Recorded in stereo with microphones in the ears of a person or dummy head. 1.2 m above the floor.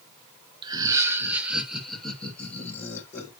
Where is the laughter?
25° right (ahead or behind), 1.4 m; by 3.3 s 15° left (ahead or behind), 3 m.